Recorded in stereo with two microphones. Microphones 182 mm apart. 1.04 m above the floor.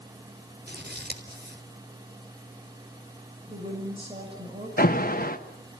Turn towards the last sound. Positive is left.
turn(degrees=55)  # may be behind; listen again after turning